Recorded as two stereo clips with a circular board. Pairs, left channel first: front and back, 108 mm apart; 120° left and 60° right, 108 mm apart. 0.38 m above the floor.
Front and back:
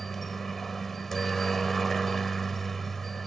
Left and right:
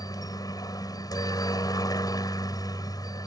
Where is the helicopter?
85° left.